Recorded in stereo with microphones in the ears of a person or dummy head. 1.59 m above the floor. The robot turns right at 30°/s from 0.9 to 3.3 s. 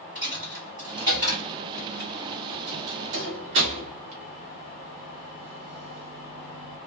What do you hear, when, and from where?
0.1 s a dropped coin: 30° right (ahead or behind), 1.5 m; by 6.8 s 40° right (ahead or behind), 1.5 m